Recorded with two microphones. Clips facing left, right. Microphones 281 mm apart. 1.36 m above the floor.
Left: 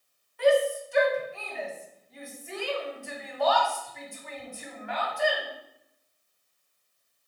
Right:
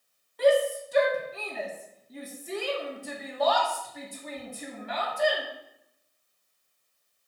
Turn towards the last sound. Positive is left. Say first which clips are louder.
# even
turn(degrees=-45)  # may be behind; listen again after turning